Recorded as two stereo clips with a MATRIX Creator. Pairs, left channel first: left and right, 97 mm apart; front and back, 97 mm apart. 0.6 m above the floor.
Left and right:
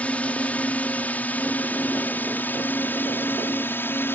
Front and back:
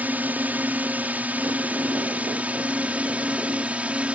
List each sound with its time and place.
0.0 s a drone: 140° left; by 4.2 s 120° left